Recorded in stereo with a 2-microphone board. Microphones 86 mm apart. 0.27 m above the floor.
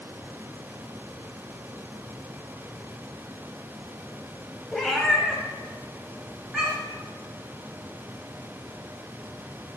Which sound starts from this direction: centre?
A cat meowing, at 4.7 s.